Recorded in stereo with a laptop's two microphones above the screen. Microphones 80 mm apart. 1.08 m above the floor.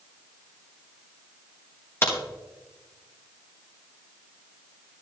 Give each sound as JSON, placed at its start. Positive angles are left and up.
{"t": 2.0, "sound": "a crack", "side_deg": 30, "distance_m": 1.3}